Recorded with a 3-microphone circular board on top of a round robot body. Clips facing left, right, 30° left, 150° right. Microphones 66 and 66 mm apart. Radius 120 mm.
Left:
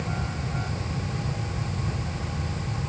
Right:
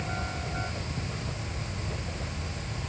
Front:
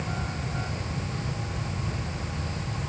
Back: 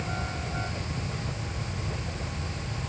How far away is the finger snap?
I don't hear a finger snap.